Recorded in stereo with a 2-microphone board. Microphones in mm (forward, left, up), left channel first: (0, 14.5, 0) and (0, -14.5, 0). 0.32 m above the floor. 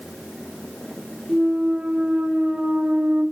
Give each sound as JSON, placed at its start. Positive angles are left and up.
{"t": 1.3, "sound": "a clunk", "side_deg": -55, "distance_m": 2.5}